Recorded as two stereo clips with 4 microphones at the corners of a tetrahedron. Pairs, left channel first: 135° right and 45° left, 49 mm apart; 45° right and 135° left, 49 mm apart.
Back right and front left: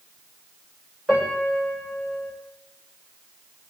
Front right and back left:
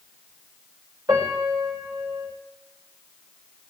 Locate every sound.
1.1 s a piano: 140° left, 9 m